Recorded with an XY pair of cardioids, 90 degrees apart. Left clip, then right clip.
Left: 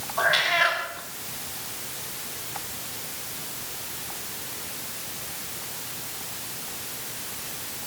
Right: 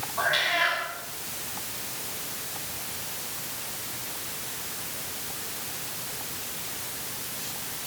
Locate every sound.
0.2 s a cat meowing: 40° left, 4 m